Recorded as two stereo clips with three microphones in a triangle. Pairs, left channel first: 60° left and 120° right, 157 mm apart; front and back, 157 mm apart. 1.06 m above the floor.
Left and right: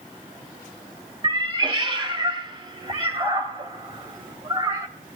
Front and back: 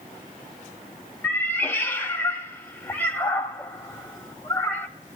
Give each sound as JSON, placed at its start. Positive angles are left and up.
{"t": 1.2, "sound": "a cat meowing", "azimuth_deg": -70, "distance_m": 1.2}